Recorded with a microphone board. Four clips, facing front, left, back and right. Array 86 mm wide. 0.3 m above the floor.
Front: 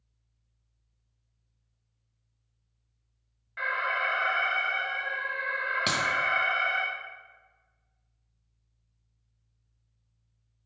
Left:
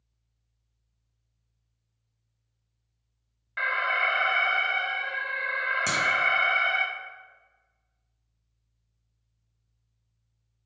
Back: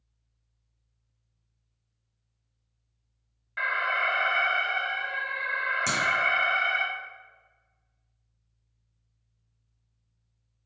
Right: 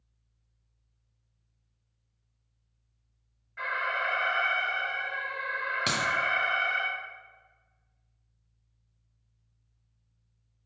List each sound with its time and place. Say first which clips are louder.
3.6 s an alarm: left 4 dB, back 2 dB; 115° left, 0.8 m
5.9 s a clap: even, front 1 dB; 35° right, 0.7 m